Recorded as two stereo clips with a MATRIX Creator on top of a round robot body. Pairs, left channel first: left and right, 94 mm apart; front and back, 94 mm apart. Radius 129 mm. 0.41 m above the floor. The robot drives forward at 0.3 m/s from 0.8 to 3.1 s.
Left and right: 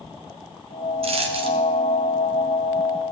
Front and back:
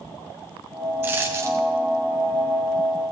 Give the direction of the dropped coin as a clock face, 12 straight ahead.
4 o'clock.